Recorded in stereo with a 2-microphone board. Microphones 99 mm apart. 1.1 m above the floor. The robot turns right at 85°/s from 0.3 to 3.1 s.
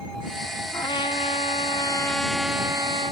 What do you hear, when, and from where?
0.7 s a trumpet: 40° left; by 3.1 s 115° right